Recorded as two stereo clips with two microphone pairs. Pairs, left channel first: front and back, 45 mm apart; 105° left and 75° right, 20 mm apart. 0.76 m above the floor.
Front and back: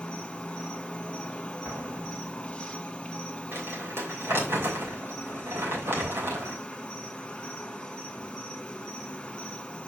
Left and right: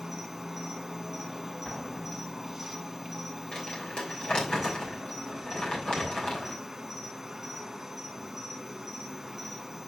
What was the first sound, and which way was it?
An insect, 10° right.